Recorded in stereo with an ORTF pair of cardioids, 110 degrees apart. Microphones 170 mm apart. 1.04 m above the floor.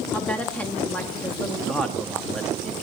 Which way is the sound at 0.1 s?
10° left.